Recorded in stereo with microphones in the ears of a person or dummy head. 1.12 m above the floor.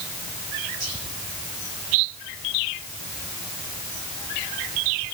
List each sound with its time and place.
0.8 s whispering: 70° right (ahead or behind), 4.5 m